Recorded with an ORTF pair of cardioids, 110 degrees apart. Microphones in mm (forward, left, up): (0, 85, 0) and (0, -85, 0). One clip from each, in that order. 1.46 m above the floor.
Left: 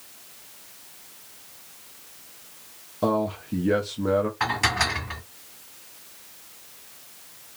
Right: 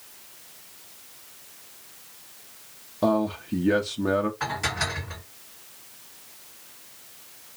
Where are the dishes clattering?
40° left, 1.7 m.